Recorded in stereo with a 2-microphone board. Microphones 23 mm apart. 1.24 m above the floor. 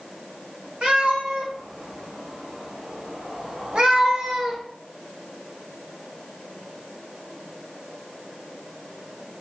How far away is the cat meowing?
About 2.5 m.